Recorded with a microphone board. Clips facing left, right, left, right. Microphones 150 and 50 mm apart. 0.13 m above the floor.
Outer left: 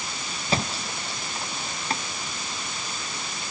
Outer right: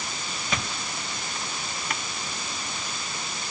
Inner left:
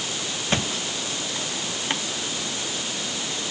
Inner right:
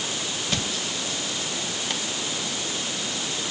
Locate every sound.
0.5 s a thud: 30° left (ahead or behind)